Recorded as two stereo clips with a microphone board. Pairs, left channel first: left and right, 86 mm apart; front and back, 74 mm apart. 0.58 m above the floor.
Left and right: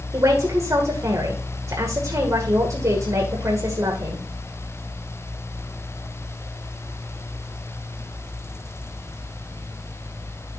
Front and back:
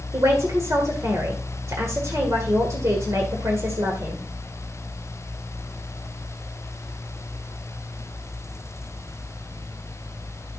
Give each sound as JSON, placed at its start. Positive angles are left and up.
{"t": 0.1, "sound": "a man speaking", "azimuth_deg": -135, "distance_m": 2.0}